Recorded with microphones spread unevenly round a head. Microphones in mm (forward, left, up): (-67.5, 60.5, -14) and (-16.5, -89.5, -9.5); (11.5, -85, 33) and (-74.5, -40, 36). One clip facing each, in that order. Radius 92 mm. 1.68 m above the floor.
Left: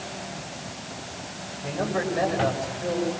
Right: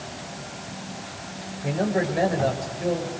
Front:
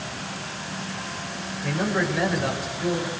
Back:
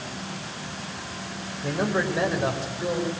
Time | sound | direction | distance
1.6 | a man speaking | 145° right | 6.5 m